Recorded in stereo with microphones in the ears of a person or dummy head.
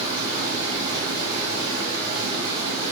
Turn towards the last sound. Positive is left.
turn(degrees=-25)  # may be behind; listen again after turning